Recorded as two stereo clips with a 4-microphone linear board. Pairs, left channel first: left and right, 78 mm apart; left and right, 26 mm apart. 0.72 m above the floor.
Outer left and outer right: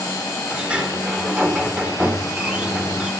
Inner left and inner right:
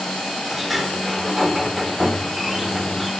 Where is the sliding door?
15° right (ahead or behind), 2 m.